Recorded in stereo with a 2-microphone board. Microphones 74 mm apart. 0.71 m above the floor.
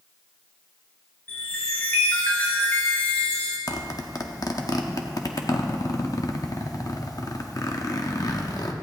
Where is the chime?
25° left (ahead or behind), 3 m.